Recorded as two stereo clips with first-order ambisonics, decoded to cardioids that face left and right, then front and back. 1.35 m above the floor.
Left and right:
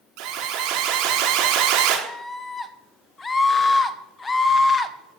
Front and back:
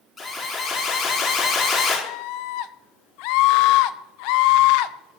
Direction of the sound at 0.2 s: 75° right.